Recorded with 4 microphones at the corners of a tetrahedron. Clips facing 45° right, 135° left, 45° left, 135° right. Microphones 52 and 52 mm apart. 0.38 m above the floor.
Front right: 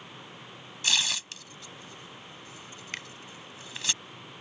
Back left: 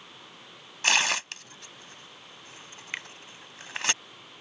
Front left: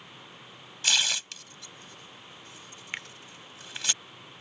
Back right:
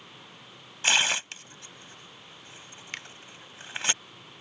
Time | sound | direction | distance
0.8 | tearing paper | 170° left | ?
2.9 | a finger snap | 95° left | ?